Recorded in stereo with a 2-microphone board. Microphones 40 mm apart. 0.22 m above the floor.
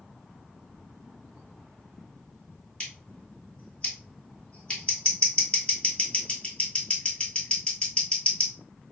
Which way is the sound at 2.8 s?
25° left (ahead or behind).